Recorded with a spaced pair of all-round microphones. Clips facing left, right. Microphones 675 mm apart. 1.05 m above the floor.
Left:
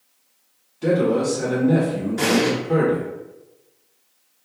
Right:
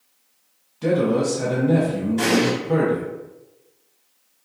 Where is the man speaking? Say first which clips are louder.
Left 1 dB; 35° right (ahead or behind), 0.7 m.